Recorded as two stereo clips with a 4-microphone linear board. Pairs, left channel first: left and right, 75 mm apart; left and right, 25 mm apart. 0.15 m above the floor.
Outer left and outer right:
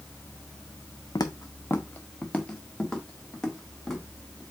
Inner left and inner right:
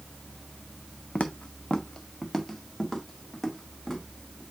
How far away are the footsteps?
About 0.5 m.